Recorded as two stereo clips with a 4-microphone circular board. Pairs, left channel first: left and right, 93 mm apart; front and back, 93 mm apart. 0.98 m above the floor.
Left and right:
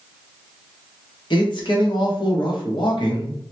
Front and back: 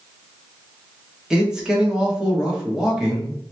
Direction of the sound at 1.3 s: 100° left.